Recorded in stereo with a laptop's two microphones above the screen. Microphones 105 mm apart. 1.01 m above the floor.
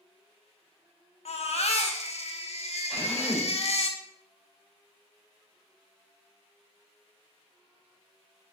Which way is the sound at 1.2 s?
70° left (ahead or behind).